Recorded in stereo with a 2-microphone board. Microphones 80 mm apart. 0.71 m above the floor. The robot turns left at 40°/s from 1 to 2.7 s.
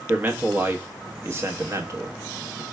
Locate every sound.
0.1 s a man speaking: 25° right (ahead or behind), 0.9 m; by 2.6 s 40° right (ahead or behind), 0.9 m